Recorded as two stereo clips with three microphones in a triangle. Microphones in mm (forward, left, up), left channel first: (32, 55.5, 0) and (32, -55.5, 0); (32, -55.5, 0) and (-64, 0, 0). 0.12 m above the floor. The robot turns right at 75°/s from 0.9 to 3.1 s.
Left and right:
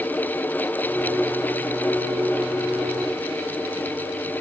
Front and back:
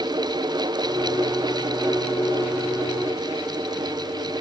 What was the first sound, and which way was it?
Only background noise.